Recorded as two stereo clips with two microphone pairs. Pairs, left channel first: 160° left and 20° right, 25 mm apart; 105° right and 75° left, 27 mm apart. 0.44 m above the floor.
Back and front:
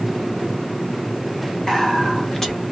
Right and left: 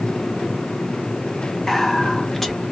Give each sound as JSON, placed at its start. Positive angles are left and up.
{"t": 1.7, "sound": "whispering", "azimuth_deg": -175, "distance_m": 0.9}